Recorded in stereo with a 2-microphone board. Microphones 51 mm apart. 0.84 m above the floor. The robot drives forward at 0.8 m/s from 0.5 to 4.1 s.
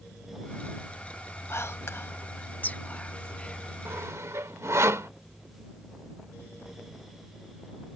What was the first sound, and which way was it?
Whispering, 50° left (ahead or behind).